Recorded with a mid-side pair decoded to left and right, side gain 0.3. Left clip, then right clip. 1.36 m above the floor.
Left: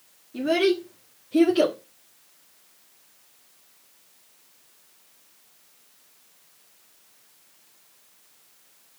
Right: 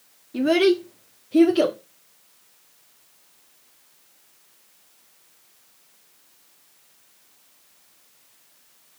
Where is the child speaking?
60° right, 1.7 m; by 1.8 s 5° right, 2 m.